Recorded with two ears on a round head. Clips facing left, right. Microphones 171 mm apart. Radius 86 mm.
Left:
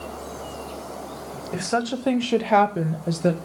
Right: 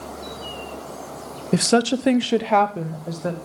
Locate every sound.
1.5 s a woman speaking: 50° right (ahead or behind), 0.9 m; by 3.4 s 30° left (ahead or behind), 1.2 m